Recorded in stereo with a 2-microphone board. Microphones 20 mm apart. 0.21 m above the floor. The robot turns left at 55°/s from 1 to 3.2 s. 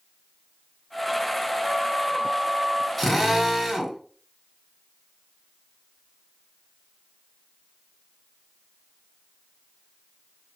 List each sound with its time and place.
1.6 s a flute: 15° right, 1.9 m; by 2.9 s 85° right, 1.9 m
3.0 s a drill: 5° left (ahead or behind), 1.4 m; by 4.0 s centre (ahead or behind), 1.4 m